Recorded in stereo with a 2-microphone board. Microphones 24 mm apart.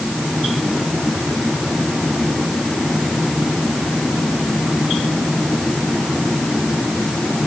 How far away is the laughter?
I don't hear laughter.